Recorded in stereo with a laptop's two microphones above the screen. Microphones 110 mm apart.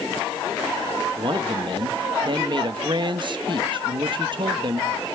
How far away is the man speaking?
About 1.2 m.